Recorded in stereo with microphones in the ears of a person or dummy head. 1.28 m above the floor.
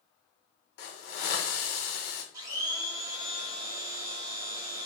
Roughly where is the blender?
Right.